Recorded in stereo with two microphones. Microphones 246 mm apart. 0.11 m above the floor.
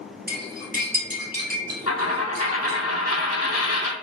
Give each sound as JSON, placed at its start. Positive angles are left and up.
{"t": 0.3, "sound": "cutlery clinking", "side_deg": -40, "distance_m": 1.3}
{"t": 1.9, "sound": "a dropped coin", "side_deg": 80, "distance_m": 0.7}